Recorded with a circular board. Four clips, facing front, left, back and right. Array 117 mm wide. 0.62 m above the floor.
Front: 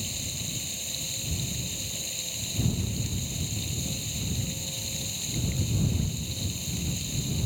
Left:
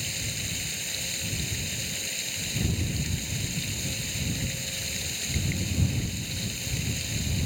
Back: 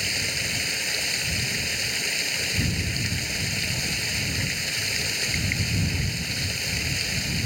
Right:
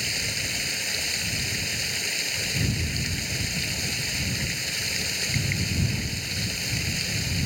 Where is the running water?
150° right.